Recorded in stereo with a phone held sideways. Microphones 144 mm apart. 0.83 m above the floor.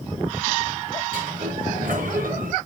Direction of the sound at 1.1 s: 70° right (ahead or behind).